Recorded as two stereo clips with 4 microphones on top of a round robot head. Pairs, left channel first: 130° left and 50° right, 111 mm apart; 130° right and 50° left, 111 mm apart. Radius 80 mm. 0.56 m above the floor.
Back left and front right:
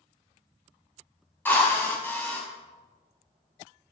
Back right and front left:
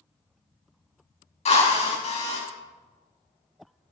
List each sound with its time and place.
1.4 s a drill: 155° right, 6 m